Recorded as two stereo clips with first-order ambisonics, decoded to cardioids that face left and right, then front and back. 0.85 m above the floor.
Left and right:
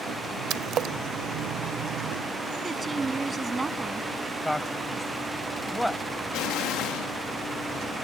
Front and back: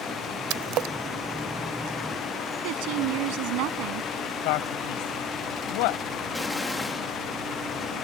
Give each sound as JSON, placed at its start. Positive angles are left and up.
{"t": 0.5, "sound": "a splash", "azimuth_deg": -145}
{"t": 2.6, "sound": "a woman speaking", "azimuth_deg": -170}
{"t": 4.4, "sound": "a man speaking", "azimuth_deg": 5}
{"t": 6.3, "sound": "an explosion", "azimuth_deg": 85}